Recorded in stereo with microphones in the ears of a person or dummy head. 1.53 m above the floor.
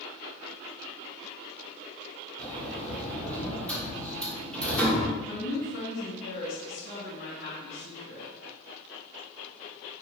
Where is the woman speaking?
60° left (ahead or behind), 1.8 m.